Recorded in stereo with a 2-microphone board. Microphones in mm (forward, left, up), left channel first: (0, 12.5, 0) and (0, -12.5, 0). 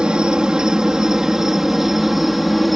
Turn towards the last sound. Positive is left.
turn(degrees=-5)  # may be behind; listen again after turning